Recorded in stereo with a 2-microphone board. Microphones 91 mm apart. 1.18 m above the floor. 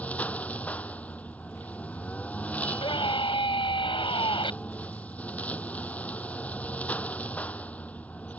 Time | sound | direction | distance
0.0 | a lawn mower | 15° left (ahead or behind) | ?
2.6 | a scream | 60° left (ahead or behind) | ?